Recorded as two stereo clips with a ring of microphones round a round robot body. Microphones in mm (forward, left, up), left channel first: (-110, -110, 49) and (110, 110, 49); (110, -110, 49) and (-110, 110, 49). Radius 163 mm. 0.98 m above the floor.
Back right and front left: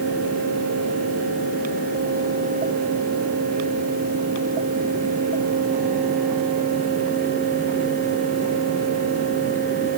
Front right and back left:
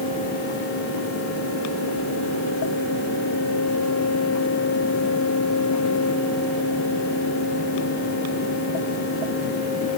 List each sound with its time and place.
Only background noise.